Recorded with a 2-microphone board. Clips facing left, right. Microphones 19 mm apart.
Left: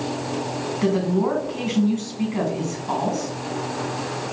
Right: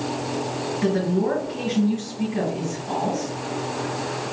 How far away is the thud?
No thud in this recording.